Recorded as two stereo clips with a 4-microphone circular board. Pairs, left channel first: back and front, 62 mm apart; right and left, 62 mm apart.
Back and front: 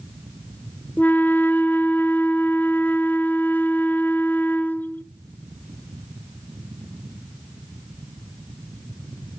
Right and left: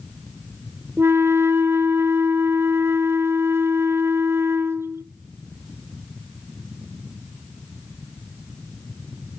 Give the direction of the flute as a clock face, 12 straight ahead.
8 o'clock.